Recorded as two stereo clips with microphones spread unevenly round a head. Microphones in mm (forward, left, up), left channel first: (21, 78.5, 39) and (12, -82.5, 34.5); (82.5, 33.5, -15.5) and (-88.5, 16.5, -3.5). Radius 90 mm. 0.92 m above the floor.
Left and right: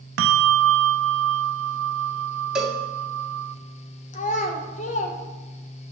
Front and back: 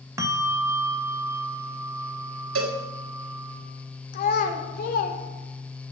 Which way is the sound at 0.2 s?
100° right.